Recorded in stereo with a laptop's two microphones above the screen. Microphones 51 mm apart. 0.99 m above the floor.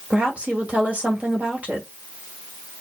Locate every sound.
0.1 s a woman speaking: 30° right (ahead or behind), 2.0 m